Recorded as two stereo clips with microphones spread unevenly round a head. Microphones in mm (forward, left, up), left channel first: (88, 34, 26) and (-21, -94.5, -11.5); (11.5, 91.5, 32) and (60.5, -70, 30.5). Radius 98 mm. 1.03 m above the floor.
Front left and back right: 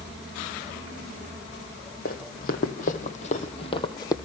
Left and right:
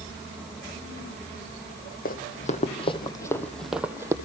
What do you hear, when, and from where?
2.0 s running footsteps: 75° left, 2 m; by 4.1 s 5° right, 1.7 m